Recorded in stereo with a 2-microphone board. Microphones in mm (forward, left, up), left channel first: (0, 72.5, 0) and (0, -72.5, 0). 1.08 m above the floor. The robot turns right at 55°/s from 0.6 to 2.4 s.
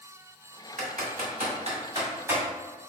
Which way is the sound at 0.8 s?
65° right (ahead or behind).